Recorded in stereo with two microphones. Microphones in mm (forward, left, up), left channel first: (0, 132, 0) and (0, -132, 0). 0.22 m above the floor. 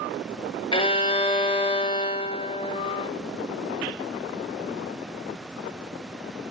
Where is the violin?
20° left (ahead or behind), 1.0 m.